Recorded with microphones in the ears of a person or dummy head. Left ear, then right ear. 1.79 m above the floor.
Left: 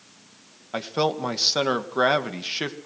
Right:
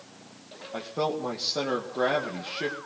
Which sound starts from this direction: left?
A man speaking, at 0.7 s.